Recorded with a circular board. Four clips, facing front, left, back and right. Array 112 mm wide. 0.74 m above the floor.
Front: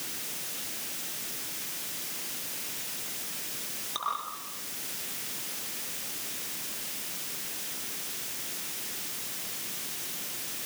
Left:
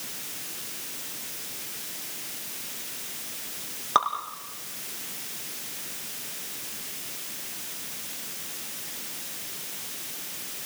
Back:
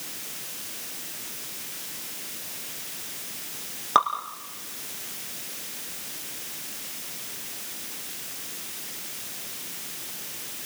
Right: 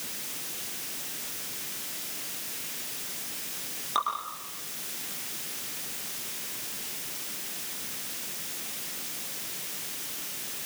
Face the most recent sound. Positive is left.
turn(degrees=150)